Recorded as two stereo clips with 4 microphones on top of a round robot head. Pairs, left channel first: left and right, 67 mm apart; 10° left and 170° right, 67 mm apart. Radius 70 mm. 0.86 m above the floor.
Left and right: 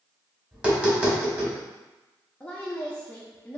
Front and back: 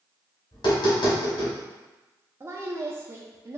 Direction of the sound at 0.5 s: 20° right.